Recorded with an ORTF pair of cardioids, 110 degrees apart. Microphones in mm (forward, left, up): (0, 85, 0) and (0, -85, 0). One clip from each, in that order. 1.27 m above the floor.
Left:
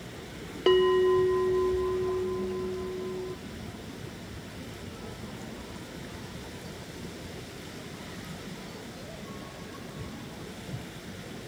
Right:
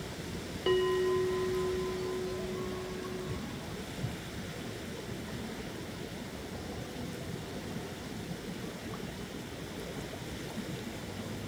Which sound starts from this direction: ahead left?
A bell, at 0.7 s.